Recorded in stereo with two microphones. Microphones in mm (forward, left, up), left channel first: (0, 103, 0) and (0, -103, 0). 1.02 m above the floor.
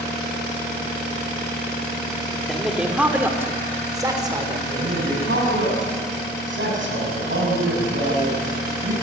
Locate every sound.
2.5 s a man speaking: centre (ahead or behind), 3 m; by 4.6 s 25° right (ahead or behind), 4 m
4.7 s a man speaking: 80° right, 7.5 m